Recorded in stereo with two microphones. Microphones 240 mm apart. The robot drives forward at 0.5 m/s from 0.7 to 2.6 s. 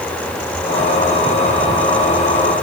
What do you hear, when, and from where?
Only background noise.